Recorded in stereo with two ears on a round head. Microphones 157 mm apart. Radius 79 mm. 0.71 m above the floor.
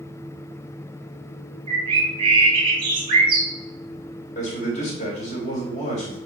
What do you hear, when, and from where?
1.7 s a bird: 30° right (ahead or behind), 2 m
4.3 s a man speaking: 40° left (ahead or behind), 3 m